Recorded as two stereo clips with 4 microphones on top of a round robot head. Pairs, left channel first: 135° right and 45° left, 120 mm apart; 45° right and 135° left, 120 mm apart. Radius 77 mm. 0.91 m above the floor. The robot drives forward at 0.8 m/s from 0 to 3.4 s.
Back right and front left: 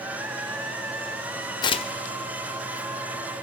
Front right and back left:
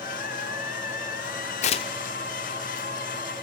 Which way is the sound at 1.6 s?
75° right.